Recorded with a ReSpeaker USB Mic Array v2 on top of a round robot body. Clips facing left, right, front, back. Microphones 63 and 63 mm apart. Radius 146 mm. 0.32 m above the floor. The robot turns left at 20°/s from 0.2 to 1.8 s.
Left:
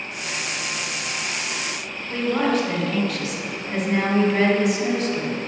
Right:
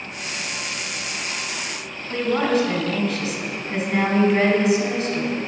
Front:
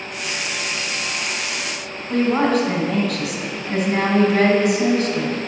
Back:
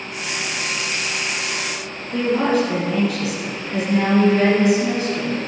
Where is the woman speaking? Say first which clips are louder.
Right 1 dB, front 1 dB; straight ahead, 3 m.